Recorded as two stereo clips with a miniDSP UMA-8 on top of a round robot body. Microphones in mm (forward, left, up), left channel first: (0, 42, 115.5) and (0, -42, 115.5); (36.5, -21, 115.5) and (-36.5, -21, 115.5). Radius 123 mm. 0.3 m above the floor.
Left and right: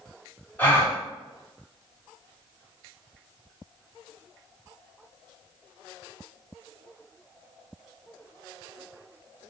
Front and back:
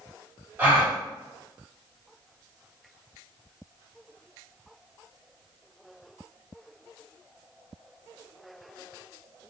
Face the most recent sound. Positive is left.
turn(degrees=135)